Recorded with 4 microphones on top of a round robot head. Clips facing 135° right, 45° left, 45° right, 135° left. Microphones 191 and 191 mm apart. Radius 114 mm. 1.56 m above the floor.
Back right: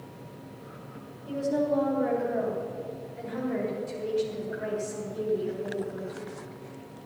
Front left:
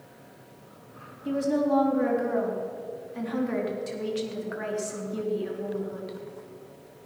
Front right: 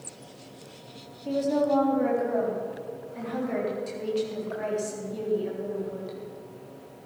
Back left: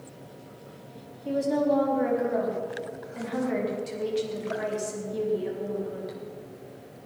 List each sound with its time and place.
1.2 s a woman speaking: 50° left, 3.5 m